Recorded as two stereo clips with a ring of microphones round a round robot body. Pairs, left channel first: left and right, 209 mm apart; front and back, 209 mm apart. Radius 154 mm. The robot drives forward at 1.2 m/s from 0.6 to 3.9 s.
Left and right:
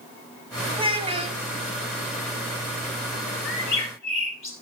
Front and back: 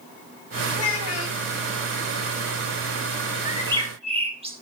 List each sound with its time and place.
0.7 s a child speaking: 25° right, 3.5 m; by 1.4 s 30° right, 2.5 m
3.5 s a bird: 105° left, 2.5 m; by 4.5 s 120° left, 2.5 m